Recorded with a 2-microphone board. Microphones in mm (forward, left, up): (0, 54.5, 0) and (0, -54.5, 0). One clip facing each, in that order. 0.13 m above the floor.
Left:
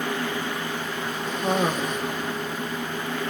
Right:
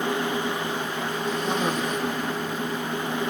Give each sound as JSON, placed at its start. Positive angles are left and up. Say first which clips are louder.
{"t": 1.3, "sound": "a cough", "louder": "left 3 dB", "side_deg": 50, "distance_m": 4.5}